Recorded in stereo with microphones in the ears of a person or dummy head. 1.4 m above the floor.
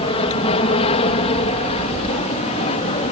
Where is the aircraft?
30° left (ahead or behind); by 3.1 s 35° left (ahead or behind).